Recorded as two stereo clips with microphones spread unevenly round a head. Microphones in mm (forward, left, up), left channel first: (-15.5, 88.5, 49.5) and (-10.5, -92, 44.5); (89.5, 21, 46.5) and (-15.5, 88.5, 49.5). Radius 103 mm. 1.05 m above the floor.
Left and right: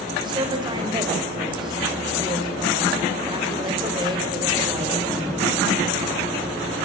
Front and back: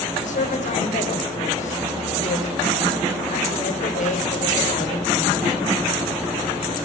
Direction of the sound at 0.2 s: 25° right.